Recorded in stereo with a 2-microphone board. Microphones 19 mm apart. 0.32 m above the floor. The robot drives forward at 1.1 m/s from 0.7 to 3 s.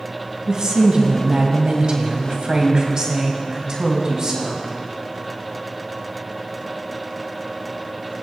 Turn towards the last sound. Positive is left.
turn(degrees=-40)  # may be behind; listen again after turning